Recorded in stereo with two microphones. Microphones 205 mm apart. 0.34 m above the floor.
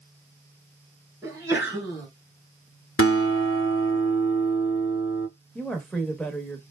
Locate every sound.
1.2 s a sneeze: 15° right (ahead or behind), 1.9 m
3.0 s a guitar: 80° left, 0.8 m
5.5 s a woman speaking: 5° left (ahead or behind), 0.9 m